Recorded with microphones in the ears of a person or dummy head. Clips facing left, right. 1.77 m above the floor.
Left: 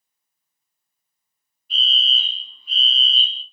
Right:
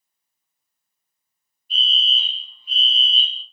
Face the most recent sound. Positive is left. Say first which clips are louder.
# even
turn(degrees=40)  # may be behind; listen again after turning